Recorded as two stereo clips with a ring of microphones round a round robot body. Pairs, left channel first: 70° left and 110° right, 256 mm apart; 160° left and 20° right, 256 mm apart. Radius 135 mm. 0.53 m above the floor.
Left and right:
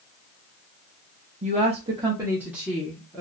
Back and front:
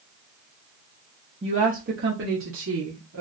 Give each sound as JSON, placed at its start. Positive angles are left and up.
{"t": 1.4, "sound": "a woman speaking", "azimuth_deg": -75, "distance_m": 0.9}